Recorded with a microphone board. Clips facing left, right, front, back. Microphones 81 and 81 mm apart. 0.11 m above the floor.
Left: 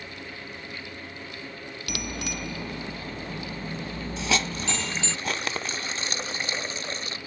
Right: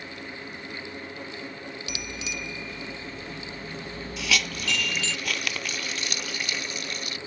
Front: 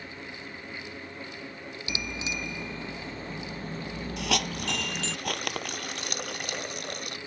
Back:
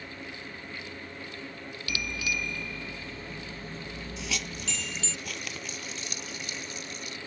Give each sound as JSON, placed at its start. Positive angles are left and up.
{"t": 1.9, "sound": "a bicycle bell", "azimuth_deg": 70}
{"t": 4.2, "sound": "a hiss", "azimuth_deg": 30}